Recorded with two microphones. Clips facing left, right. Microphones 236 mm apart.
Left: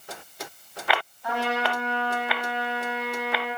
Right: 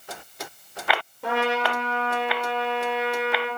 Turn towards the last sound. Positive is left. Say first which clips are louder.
# right 5 dB
turn(degrees=-75)  # may be behind; listen again after turning